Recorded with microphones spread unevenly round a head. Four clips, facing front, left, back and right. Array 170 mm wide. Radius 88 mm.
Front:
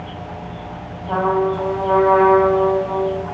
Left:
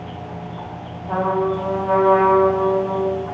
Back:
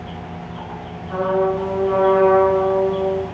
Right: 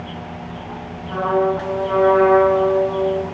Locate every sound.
1.1 s a trumpet: 30° left, 8.5 m